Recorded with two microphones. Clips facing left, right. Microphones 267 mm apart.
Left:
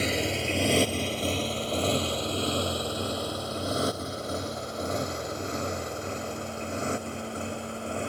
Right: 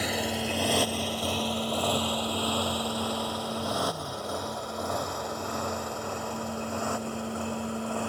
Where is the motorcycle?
25° left (ahead or behind); by 8.1 s 20° left (ahead or behind).